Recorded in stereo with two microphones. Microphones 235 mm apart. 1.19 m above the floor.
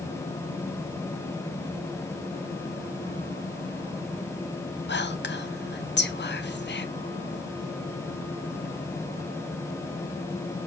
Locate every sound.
4.9 s whispering: 50° left (ahead or behind), 0.6 m